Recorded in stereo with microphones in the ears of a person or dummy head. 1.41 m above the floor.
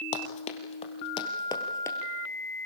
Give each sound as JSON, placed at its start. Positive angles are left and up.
{"t": 0.1, "sound": "running footsteps", "side_deg": 45, "distance_m": 2.5}